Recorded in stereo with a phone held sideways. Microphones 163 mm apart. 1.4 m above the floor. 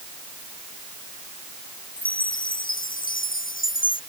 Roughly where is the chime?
Left.